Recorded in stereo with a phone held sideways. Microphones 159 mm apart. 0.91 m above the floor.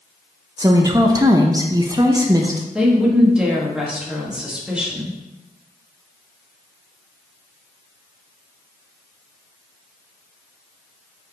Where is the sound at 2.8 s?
5° right (ahead or behind), 1.4 m.